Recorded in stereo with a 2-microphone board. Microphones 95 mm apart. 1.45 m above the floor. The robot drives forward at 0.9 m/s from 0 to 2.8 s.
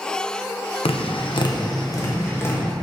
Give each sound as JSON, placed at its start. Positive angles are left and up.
{"t": 0.8, "sound": "tapping", "side_deg": 80, "distance_m": 0.8}